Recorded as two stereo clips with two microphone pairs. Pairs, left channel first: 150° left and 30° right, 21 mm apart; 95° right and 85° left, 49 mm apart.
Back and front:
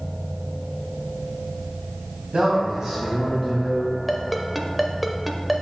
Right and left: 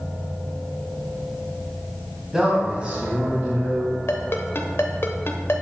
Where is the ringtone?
110° right, 0.7 m.